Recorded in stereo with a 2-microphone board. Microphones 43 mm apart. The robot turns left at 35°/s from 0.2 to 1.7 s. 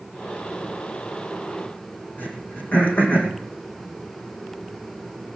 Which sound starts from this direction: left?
Throat clearing, at 2.2 s.